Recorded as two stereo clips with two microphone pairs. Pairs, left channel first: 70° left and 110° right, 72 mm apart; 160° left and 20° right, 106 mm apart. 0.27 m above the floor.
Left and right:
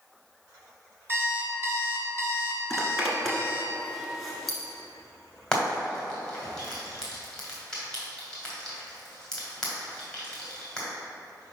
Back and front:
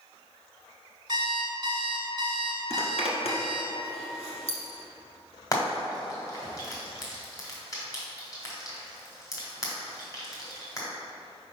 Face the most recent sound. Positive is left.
turn(degrees=140)